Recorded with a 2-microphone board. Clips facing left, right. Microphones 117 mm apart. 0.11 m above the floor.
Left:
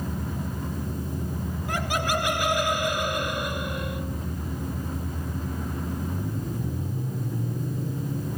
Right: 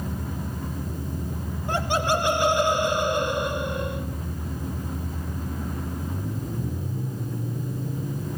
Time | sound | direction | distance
1.7 | laughter | 30° right (ahead or behind) | 1.9 m